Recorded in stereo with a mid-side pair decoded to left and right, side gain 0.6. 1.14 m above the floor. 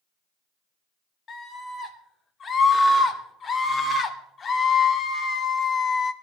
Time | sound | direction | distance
1.3 | a scream | 35° left | 4.5 m